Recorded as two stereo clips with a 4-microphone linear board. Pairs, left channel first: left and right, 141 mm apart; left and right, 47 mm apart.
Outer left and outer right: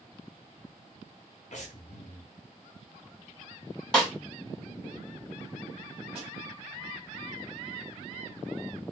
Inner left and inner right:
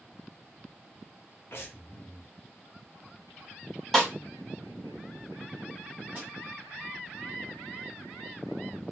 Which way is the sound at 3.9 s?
5° left (ahead or behind).